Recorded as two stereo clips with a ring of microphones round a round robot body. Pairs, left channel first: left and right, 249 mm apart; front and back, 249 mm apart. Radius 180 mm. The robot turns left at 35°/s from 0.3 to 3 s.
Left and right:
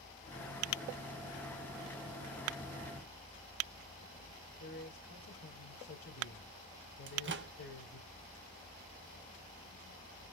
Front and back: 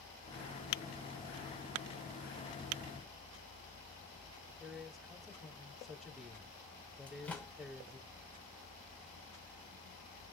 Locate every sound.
4.6 s a man speaking: 90° left, 2.5 m
7.1 s a microwave: 85° right, 0.7 m